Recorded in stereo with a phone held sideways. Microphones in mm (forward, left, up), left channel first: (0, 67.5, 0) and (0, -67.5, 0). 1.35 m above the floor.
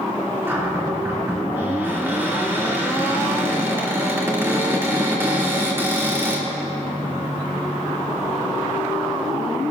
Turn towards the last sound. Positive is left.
turn(degrees=-20)  # may be behind; listen again after turning